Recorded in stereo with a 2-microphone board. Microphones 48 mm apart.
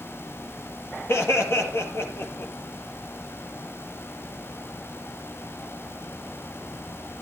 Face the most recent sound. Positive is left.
turn(degrees=60)  # may be behind; listen again after turning